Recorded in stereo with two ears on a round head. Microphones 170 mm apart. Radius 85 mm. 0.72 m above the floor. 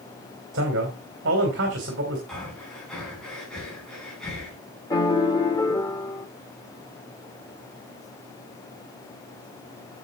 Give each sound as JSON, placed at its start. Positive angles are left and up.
{"t": 0.5, "sound": "a man speaking", "side_deg": -60, "distance_m": 2.5}
{"t": 2.3, "sound": "breathing", "side_deg": 5, "distance_m": 4.0}
{"t": 4.9, "sound": "a piano", "side_deg": 20, "distance_m": 0.7}